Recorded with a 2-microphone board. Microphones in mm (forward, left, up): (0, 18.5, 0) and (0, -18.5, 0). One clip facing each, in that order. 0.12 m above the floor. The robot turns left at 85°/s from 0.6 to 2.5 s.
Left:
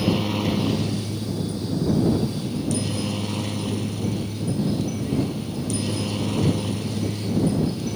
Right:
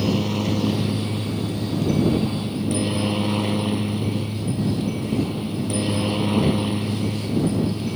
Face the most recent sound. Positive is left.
turn(degrees=-155)